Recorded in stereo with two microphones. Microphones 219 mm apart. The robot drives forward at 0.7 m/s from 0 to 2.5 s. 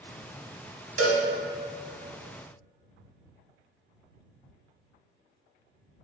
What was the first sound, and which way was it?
A cowbell, 85° right.